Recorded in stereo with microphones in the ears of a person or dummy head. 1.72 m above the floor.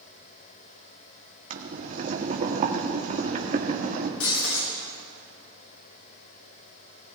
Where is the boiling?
40° right (ahead or behind), 1.4 m.